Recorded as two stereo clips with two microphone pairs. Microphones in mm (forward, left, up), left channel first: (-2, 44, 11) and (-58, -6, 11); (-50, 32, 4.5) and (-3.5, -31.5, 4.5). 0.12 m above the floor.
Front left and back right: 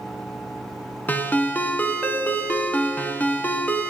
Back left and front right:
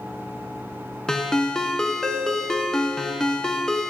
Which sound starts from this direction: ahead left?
A ringtone, at 1.1 s.